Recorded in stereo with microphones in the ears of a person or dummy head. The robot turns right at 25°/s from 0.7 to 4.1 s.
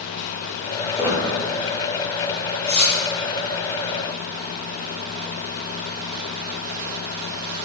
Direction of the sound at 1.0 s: 10° right (ahead or behind).